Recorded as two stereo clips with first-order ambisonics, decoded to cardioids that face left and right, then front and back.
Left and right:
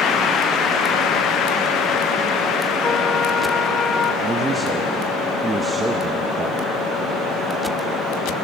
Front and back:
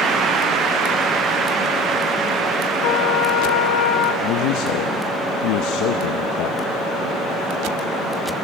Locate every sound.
2.8 s a trumpet: 20° left, 2 m
4.2 s a man speaking: 15° right, 0.7 m